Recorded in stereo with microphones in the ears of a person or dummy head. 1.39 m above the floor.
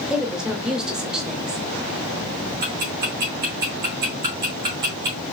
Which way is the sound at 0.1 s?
Centre (ahead or behind).